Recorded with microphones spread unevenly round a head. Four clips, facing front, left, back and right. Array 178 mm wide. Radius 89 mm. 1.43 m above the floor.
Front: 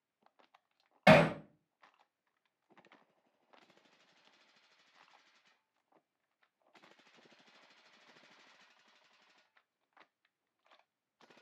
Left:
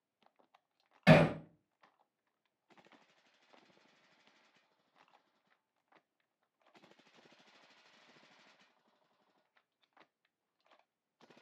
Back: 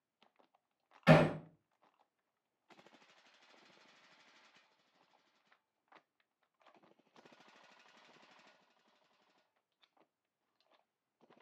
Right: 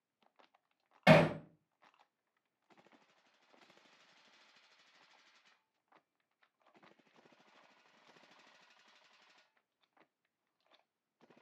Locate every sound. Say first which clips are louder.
1.1 s hammering: even, front 3 dB; 40° right, 2.5 m